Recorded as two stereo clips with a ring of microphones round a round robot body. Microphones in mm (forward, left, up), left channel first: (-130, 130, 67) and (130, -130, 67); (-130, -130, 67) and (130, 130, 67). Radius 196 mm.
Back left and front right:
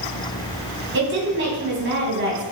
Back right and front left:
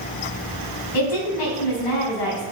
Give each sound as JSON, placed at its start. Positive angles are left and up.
{"t": 0.9, "sound": "a woman speaking", "azimuth_deg": -105, "distance_m": 3.5}